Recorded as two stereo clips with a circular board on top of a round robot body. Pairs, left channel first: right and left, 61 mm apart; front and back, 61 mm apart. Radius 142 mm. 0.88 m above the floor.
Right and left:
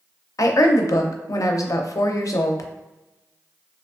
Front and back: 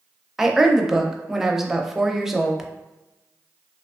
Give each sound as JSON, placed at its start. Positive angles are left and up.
{"t": 0.4, "sound": "a woman speaking", "azimuth_deg": -95, "distance_m": 0.5}